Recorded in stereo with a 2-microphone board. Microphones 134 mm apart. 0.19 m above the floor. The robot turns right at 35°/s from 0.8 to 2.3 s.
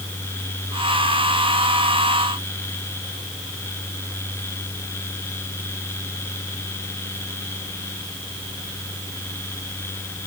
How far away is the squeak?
No squeak in this recording.